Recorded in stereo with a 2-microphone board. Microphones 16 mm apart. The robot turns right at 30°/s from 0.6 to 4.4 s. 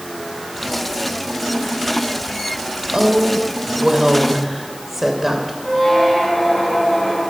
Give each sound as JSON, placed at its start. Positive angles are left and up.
{"t": 2.9, "sound": "a woman speaking", "azimuth_deg": -60, "distance_m": 2.5}
{"t": 5.6, "sound": "a squeak", "side_deg": 25, "distance_m": 4.5}